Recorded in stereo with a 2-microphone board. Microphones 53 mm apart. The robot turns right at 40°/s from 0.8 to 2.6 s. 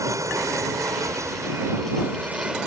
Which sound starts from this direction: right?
An aircraft, at 0.0 s.